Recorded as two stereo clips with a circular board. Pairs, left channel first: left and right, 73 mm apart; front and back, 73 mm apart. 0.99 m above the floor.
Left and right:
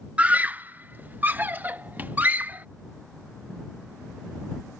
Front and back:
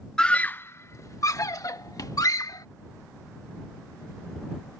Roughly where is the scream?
Ahead right.